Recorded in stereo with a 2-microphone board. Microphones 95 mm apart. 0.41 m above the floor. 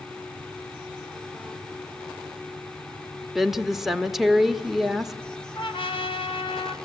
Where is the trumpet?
65° left (ahead or behind), 1.9 m.